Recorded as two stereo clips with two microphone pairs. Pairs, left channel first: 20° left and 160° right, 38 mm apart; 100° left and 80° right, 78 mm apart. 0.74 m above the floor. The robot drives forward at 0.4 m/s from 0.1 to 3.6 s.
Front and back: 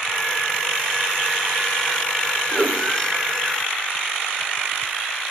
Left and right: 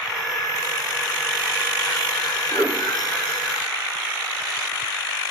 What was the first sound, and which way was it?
A whoosh, 150° right.